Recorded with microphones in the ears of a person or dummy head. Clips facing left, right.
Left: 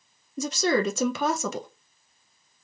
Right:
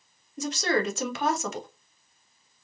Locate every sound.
0.4 s a woman speaking: 80° left, 0.7 m